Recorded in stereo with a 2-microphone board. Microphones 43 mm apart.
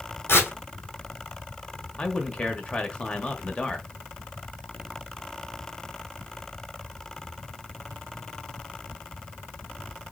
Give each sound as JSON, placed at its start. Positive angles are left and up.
{"t": 0.3, "sound": "tearing paper", "side_deg": 65, "distance_m": 2.0}
{"t": 2.0, "sound": "a man speaking", "side_deg": 25, "distance_m": 1.0}